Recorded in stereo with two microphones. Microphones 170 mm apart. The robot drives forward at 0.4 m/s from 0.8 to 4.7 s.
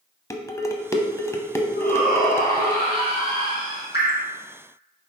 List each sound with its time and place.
0.3 s dishes clattering: 15° left (ahead or behind), 0.7 m; by 2.8 s 10° left (ahead or behind), 1.0 m
1.8 s a shout: 55° left (ahead or behind), 3 m; by 3.8 s 50° left (ahead or behind), 3 m
3.9 s dripping: 75° left (ahead or behind), 2.5 m